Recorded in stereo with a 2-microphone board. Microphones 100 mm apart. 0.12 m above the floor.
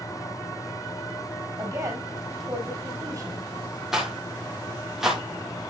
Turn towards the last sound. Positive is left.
turn(degrees=-5)  # may be behind; listen again after turning